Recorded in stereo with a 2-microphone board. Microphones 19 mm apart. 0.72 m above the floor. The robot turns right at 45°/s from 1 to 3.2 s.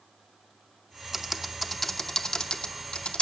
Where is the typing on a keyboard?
20° right (ahead or behind), 0.8 m; by 3.2 s 70° left (ahead or behind), 0.8 m.